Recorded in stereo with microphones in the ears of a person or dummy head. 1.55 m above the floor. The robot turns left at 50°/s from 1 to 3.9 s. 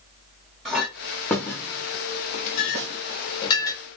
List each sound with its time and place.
0.7 s a clink: centre (ahead or behind), 0.6 m; by 3.8 s 20° left (ahead or behind), 0.6 m
2.8 s a snare drum: 60° right (ahead or behind), 0.9 m; by 3.0 s 55° right (ahead or behind), 0.9 m